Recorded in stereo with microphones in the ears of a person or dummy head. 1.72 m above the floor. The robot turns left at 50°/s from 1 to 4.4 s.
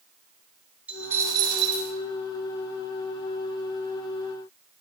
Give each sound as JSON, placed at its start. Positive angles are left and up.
{"t": 0.9, "sound": "a dropped coin", "azimuth_deg": -10, "distance_m": 3.0}